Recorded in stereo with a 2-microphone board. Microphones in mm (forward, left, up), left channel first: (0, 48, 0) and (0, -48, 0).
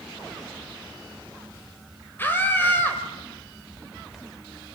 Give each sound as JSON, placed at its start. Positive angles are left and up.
{"t": 2.2, "sound": "a scream", "side_deg": 25, "distance_m": 2.5}